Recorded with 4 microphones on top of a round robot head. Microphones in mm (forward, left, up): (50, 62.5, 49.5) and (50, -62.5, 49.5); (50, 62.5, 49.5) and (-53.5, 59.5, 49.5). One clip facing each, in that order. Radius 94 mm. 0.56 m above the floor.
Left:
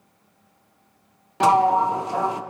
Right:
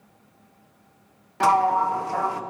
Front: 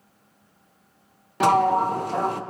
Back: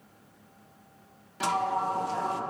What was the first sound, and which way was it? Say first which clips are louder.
A sliding door: left 2 dB, front 9 dB; 25° left.